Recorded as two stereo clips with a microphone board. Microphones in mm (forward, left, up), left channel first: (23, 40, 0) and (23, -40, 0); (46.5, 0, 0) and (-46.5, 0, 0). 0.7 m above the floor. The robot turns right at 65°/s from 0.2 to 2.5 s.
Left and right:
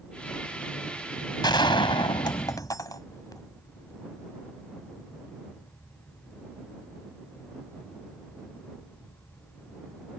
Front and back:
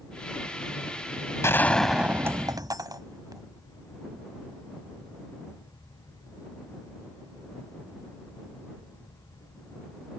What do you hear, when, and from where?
1.4 s a gunshot: 60° left; by 3.4 s 130° left